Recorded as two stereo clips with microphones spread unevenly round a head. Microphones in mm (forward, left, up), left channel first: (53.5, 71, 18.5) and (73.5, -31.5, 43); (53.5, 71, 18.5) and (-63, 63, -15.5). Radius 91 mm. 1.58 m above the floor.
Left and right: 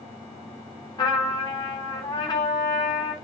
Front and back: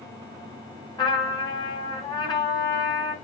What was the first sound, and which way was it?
A trumpet, 50° left.